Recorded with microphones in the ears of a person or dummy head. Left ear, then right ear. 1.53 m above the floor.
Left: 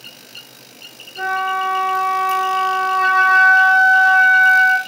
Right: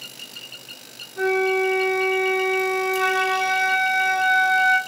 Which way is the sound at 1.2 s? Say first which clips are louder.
Left 1 dB; 10° right (ahead or behind).